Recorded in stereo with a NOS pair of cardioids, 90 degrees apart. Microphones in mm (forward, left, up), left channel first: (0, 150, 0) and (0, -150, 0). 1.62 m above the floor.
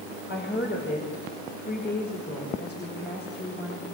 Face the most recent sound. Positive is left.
turn(degrees=35)